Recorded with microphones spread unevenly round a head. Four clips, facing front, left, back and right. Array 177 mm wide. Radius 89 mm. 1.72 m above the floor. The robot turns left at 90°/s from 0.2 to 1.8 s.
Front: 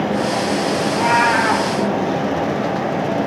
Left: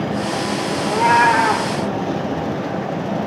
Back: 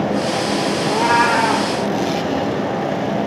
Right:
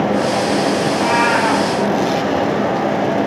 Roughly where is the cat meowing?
Behind left.